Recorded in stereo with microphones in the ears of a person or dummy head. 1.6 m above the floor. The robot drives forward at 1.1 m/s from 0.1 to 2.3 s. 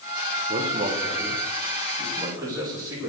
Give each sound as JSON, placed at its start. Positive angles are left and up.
{"t": 0.5, "sound": "a man speaking", "side_deg": -40, "distance_m": 1.7}